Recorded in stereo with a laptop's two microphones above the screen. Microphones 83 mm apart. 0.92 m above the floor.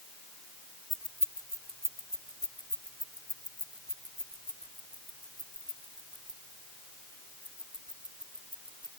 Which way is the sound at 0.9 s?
60° left (ahead or behind).